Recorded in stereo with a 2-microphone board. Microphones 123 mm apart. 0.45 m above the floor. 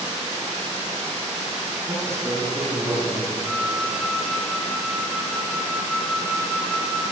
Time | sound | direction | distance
1.9 | a man speaking | 20° right (ahead or behind) | 7.5 m
3.4 | a flute | 15° right (ahead or behind) | 9.5 m